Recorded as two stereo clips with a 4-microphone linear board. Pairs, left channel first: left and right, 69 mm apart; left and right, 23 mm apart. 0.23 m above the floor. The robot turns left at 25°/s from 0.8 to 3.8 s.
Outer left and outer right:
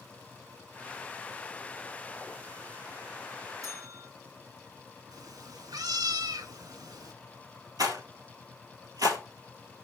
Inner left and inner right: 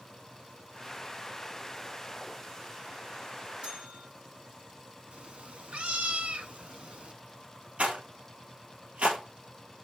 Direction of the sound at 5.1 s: 65° right (ahead or behind).